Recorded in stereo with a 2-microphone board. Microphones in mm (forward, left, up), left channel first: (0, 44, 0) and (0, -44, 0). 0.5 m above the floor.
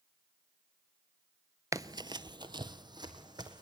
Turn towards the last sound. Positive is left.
turn(degrees=-55)  # may be behind; listen again after turning